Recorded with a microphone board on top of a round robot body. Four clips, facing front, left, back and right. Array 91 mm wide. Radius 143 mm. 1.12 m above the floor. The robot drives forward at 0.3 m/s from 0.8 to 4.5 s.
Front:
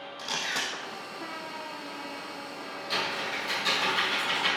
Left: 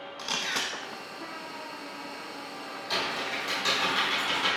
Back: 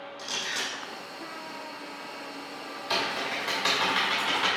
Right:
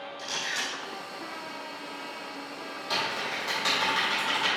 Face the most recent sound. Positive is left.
turn(degrees=-165)